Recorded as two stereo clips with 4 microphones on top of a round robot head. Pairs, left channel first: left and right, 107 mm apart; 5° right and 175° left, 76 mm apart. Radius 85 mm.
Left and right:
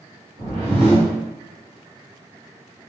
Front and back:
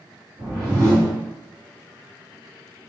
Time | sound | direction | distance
0.4 | a whoosh | 120° right | 1.2 m